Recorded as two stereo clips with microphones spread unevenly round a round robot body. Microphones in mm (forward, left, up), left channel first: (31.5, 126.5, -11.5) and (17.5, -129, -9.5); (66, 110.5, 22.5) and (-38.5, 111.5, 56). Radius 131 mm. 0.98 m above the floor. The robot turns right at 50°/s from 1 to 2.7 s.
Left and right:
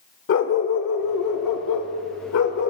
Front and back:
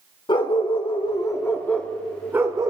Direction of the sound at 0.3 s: 50° left.